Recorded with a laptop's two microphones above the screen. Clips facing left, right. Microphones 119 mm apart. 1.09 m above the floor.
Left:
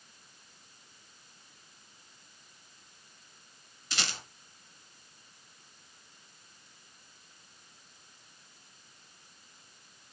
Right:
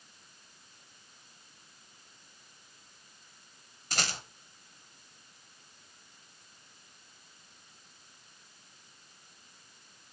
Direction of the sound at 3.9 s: 45° right (ahead or behind).